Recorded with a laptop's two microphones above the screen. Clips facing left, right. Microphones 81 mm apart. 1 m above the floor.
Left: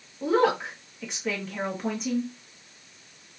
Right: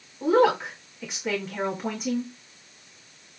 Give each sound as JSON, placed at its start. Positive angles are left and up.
{"t": 0.2, "sound": "a woman speaking", "side_deg": -5, "distance_m": 1.6}